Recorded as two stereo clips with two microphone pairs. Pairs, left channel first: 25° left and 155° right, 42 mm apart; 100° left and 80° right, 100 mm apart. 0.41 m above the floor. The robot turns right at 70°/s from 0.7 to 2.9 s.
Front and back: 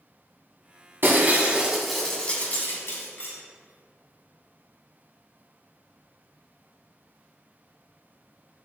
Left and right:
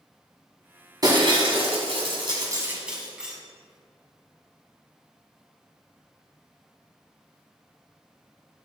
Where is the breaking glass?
130° right, 1.7 m; by 3.3 s straight ahead, 1.7 m.